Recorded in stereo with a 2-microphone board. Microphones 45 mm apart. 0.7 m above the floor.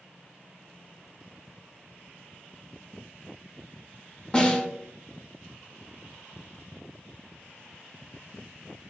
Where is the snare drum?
20° left (ahead or behind), 0.7 m.